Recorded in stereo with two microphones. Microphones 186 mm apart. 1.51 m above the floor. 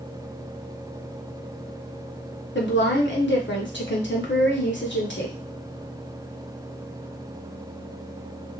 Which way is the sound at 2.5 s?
80° left.